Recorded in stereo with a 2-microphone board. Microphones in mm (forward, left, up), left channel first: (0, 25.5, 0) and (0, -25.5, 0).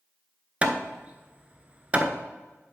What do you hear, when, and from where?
0.6 s hammering: 25° right (ahead or behind), 0.7 m